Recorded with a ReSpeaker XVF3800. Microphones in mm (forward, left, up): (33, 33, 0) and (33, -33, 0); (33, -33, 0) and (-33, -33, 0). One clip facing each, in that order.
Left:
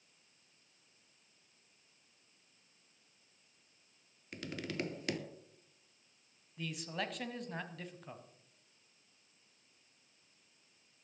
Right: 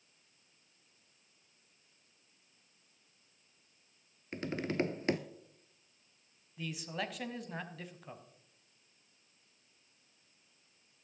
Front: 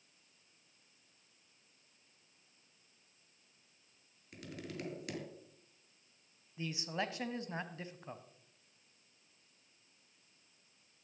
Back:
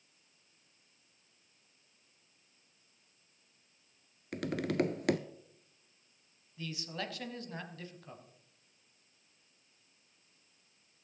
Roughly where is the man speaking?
Ahead.